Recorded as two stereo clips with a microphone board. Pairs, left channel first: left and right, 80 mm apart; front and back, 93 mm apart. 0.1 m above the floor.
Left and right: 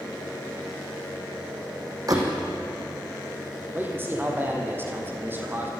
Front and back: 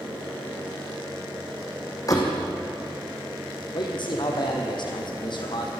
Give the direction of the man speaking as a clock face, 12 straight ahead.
1 o'clock.